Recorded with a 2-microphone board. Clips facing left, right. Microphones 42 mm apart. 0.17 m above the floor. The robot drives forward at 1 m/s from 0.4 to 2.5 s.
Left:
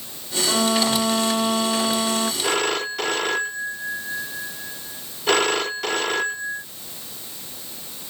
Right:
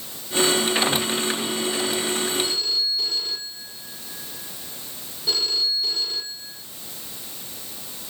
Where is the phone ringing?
70° left (ahead or behind).